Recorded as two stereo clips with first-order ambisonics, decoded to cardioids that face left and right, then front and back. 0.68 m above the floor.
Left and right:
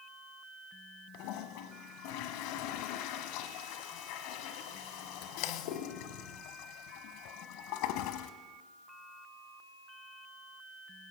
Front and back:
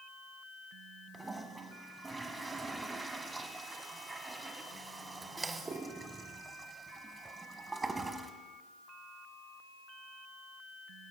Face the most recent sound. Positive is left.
turn(degrees=100)